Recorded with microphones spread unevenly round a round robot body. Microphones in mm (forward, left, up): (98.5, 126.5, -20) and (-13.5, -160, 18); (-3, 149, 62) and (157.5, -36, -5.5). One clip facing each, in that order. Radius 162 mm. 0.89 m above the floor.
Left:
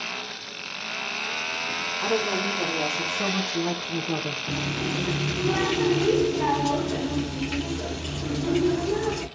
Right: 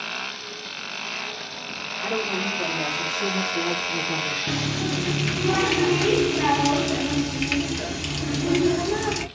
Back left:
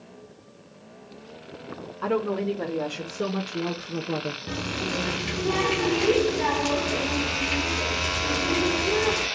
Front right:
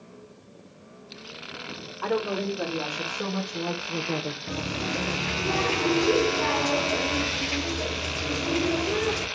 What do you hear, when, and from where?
2.0 s a woman speaking: 75° left, 2.0 m; by 4.4 s 45° left, 0.9 m
4.5 s a running tap: 160° right, 0.9 m